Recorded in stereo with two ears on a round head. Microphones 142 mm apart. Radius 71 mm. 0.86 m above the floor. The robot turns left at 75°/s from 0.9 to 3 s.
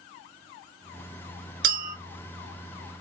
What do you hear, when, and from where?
1.6 s a clink: 65° right (ahead or behind), 1.1 m; by 1.9 s 45° right (ahead or behind), 1.1 m